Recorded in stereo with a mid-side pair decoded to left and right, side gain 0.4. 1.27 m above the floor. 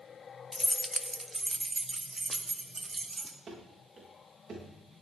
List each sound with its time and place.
0.5 s keys jangling: 25° left, 0.6 m; by 3.4 s 30° right, 2.5 m
3.5 s running footsteps: 55° right, 8 m